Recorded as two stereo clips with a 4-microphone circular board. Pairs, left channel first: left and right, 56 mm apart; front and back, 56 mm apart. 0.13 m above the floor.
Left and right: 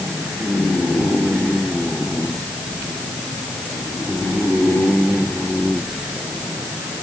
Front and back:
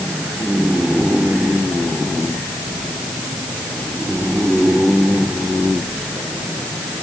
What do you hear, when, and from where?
Only background noise.